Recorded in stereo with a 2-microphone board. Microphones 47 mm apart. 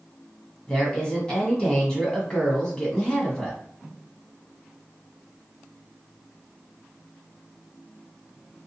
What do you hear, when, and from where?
0.7 s a woman speaking: 15° left (ahead or behind), 1.0 m